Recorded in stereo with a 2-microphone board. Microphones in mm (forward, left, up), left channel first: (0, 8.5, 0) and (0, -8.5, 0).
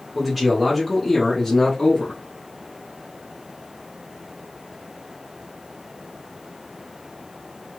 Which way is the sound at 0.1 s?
15° right (ahead or behind).